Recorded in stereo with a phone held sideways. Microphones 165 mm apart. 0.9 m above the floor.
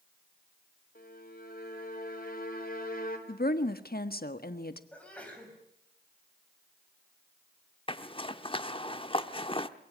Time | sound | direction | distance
0.9 | a violin | 60° left (ahead or behind) | 3.5 m
3.3 | a woman speaking | 70° left (ahead or behind) | 1.4 m
4.9 | a sneeze | 10° left (ahead or behind) | 6 m
7.9 | a zipper | 35° left (ahead or behind) | 0.9 m